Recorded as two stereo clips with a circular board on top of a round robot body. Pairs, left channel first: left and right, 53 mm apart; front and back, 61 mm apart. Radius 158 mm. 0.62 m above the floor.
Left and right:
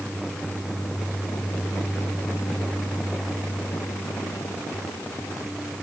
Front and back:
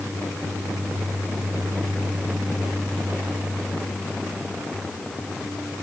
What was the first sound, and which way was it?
Only background noise.